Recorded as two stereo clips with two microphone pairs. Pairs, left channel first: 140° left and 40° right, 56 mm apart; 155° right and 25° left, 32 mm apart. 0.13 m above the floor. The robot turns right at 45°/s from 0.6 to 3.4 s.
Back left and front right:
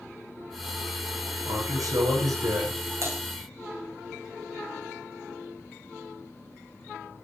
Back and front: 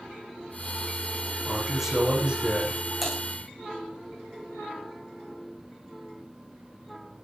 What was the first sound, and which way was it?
A man speaking, 70° right.